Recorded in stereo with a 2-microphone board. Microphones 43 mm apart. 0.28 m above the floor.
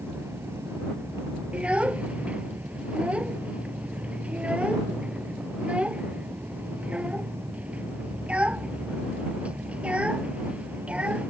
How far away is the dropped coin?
No dropped coin in this recording.